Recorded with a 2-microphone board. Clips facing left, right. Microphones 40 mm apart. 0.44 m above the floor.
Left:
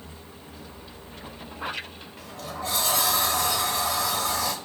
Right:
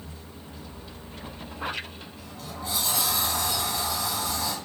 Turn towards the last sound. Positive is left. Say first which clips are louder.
# left 5 dB
turn(degrees=65)  # may be behind; listen again after turning